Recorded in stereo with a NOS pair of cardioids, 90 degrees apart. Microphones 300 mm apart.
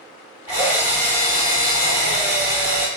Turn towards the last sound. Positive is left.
turn(degrees=-10)